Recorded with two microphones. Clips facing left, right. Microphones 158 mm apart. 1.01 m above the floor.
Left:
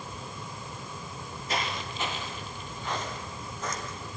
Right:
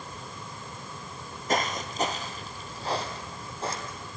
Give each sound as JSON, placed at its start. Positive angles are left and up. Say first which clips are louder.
{"t": 1.5, "sound": "footsteps", "louder": "right 5 dB", "side_deg": -45, "distance_m": 1.5}